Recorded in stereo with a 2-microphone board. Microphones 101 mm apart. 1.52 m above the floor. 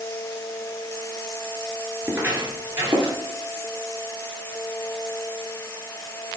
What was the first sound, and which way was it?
Footsteps, 15° right (ahead or behind).